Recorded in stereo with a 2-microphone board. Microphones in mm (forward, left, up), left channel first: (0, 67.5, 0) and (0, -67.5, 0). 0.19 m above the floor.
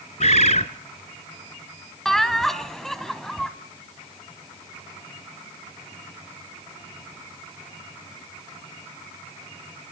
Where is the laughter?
Centre (ahead or behind), 1.0 m.